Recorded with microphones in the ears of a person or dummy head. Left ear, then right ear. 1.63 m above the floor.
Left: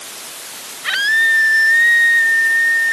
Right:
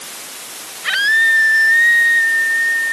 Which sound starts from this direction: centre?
A scream, at 0.8 s.